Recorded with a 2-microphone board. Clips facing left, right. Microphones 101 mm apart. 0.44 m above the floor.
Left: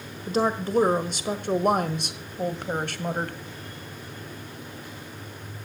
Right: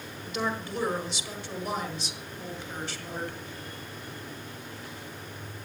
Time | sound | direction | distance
0.3 | a woman speaking | 40° left (ahead or behind) | 1.6 m